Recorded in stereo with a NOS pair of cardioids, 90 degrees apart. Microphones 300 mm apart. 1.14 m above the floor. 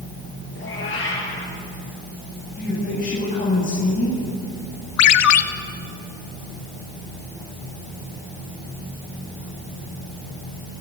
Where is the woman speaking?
25° left, 8 m.